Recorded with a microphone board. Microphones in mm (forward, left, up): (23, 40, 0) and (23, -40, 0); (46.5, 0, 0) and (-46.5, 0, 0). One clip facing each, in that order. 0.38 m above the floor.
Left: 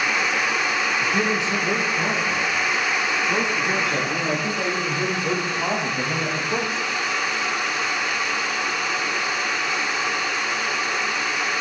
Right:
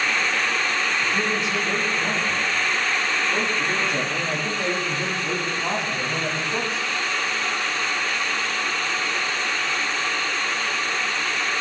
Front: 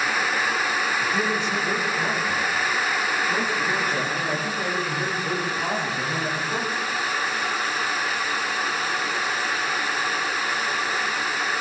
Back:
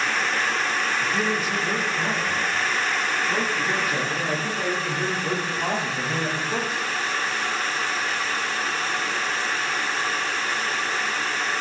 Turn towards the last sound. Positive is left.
turn(degrees=110)